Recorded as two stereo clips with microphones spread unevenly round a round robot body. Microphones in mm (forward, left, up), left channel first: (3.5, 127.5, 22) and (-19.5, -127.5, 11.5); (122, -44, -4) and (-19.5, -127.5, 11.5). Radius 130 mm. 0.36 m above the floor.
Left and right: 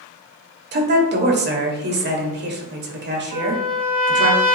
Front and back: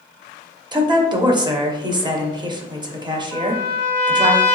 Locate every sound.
0.7 s a woman speaking: 90° right, 1.0 m
3.3 s a trumpet: 100° right, 2 m